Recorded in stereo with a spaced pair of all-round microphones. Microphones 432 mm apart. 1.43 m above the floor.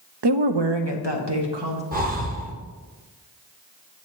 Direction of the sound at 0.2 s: 65° right (ahead or behind).